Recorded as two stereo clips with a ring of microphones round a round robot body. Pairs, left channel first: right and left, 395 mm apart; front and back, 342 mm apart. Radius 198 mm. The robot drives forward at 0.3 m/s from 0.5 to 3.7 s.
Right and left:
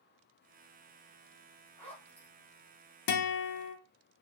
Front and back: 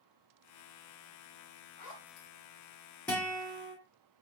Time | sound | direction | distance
1.8 | a zipper | 5° right | 1.1 m
3.1 | a guitar | 85° right | 0.5 m